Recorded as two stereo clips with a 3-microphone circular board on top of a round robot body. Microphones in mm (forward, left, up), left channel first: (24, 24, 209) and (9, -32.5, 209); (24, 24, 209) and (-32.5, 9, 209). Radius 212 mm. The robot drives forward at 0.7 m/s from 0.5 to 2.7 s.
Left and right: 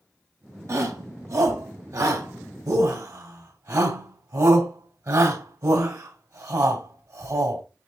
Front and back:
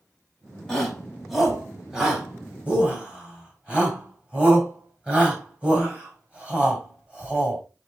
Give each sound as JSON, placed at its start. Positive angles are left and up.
{"t": 0.7, "sound": "a shout", "azimuth_deg": -70, "distance_m": 3.5}